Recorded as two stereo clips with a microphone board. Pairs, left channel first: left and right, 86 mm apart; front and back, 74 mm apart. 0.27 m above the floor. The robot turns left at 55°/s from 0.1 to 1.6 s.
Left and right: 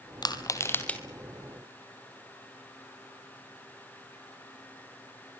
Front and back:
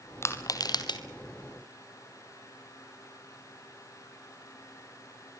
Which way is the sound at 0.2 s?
55° left.